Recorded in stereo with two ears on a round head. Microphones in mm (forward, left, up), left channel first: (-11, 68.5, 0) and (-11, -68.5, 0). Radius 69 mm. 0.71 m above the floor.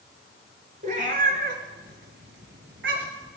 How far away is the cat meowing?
About 2.5 m.